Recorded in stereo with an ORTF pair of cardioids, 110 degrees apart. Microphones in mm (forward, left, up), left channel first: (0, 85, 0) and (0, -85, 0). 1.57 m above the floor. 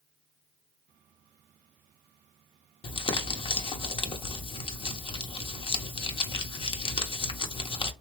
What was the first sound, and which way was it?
Crumpling, 30° left.